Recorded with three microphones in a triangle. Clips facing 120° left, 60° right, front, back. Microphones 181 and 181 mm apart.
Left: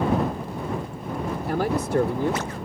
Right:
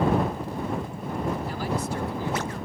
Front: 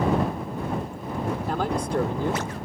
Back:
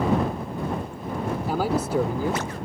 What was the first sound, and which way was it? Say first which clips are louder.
A man speaking: left 6 dB, back 4 dB; 95° left.